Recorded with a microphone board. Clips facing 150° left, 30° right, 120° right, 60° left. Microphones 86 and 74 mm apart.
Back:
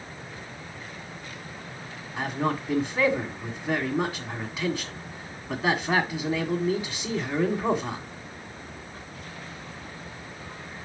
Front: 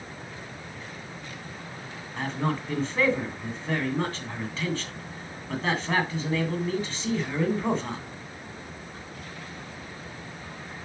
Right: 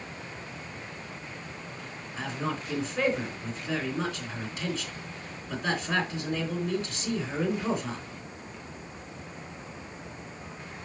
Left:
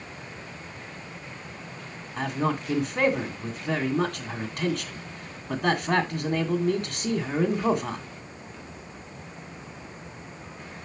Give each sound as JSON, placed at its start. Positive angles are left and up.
{"t": 2.2, "sound": "a man speaking", "azimuth_deg": 70, "distance_m": 1.9}